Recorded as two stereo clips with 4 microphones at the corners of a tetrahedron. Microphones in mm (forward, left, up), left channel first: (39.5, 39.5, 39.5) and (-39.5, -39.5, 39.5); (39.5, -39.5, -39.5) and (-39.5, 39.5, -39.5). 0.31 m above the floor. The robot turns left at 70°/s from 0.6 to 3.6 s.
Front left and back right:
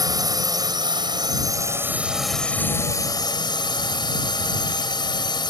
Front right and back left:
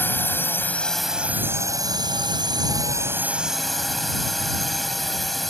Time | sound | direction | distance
0.0 | a drone | 105° right | ?